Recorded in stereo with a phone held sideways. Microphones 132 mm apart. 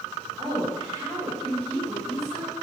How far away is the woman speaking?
About 6 m.